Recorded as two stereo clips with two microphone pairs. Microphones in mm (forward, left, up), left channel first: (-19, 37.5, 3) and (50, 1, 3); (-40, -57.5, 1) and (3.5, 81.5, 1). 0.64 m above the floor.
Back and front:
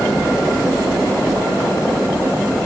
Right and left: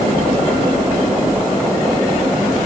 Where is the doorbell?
No doorbell in this recording.